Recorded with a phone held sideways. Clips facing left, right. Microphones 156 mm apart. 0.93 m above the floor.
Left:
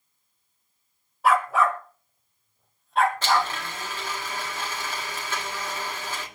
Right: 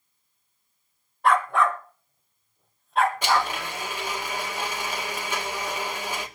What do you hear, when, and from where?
1.2 s a dog barking: 5° left (ahead or behind), 1.2 m; by 3.5 s centre (ahead or behind), 2.5 m
3.2 s a blender: 15° right (ahead or behind), 2 m